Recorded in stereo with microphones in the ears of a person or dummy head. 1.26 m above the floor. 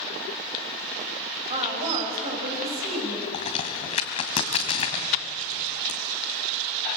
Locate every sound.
1.5 s a woman speaking: 35° right (ahead or behind), 6 m
3.3 s a crack: 40° left (ahead or behind), 2.5 m